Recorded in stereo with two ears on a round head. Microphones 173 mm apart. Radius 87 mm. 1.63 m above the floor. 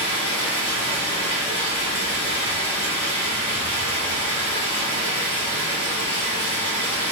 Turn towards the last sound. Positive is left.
turn(degrees=25)  # may be behind; listen again after turning